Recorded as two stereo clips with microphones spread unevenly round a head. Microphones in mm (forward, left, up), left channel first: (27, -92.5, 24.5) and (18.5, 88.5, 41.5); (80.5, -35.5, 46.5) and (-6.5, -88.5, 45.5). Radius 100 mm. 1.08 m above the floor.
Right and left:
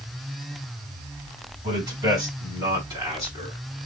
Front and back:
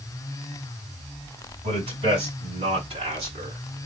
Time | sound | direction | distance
1.6 | a man speaking | 160° left | 6.5 m